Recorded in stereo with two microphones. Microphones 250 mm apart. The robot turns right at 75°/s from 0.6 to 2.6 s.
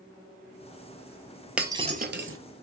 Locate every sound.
1.6 s breaking glass: 5° right (ahead or behind), 0.6 m; by 2.4 s 60° right (ahead or behind), 0.6 m